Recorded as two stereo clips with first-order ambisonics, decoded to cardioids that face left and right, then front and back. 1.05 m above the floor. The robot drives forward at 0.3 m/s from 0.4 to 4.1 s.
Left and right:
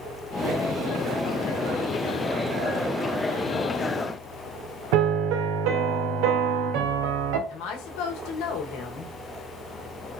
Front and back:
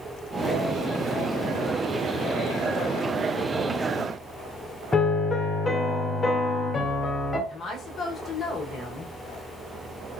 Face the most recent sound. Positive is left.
turn(degrees=65)